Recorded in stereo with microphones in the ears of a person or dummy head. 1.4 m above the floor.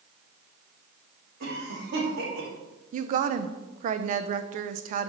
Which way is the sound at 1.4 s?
60° right (ahead or behind).